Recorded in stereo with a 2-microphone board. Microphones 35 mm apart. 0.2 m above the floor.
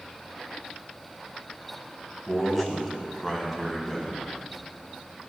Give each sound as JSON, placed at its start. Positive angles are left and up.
{"t": 2.3, "sound": "a man speaking", "side_deg": 0, "distance_m": 1.3}